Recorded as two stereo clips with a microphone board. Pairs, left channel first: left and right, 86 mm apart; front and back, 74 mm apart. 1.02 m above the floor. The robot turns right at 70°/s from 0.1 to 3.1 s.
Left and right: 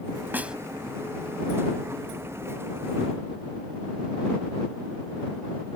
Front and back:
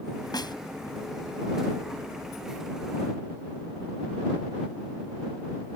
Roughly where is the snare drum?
Ahead right.